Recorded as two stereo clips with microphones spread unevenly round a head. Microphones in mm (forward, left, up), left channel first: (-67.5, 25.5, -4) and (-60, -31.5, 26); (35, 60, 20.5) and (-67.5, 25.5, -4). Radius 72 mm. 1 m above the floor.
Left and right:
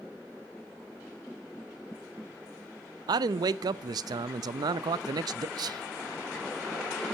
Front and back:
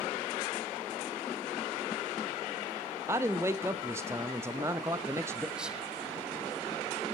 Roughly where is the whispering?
Right.